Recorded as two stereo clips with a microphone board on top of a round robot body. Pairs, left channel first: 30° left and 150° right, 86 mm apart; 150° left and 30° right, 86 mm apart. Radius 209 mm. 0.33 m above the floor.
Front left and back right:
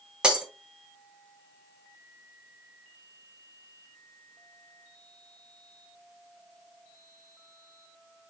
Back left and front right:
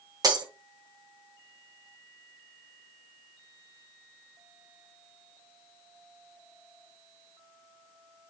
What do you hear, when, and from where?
0.2 s breaking glass: 70° right, 1.9 m